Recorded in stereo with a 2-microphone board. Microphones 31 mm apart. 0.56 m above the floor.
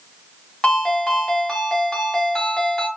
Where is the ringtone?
15° left (ahead or behind), 2.0 m.